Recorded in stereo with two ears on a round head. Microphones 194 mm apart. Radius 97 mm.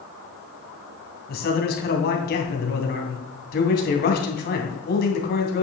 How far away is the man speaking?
About 2.5 m.